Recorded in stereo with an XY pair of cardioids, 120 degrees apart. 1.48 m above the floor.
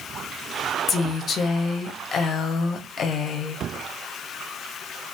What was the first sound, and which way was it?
A woman speaking, 45° left.